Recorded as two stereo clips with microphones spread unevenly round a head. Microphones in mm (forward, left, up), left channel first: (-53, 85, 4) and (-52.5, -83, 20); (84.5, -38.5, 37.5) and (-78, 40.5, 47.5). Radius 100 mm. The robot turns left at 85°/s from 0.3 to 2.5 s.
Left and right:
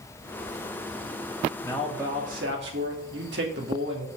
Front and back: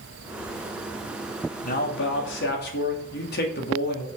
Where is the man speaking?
20° left, 2.5 m; by 4.1 s 55° right, 2.5 m.